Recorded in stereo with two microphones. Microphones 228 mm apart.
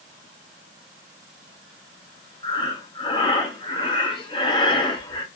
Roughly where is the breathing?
Left.